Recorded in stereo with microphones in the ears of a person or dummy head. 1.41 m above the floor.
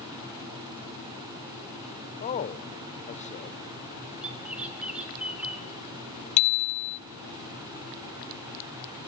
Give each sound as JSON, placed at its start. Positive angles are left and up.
{"t": 2.2, "sound": "a man speaking", "side_deg": 35, "distance_m": 1.0}
{"t": 4.2, "sound": "a bird", "side_deg": -5, "distance_m": 5.0}
{"t": 6.4, "sound": "a bicycle bell", "side_deg": 35, "distance_m": 2.0}